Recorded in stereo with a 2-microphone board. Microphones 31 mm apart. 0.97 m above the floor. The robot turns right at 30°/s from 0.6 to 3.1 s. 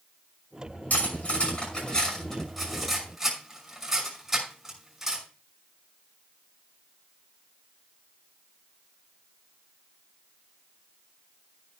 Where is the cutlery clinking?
55° left (ahead or behind), 5.5 m; by 5.2 s 10° right (ahead or behind), 5.5 m.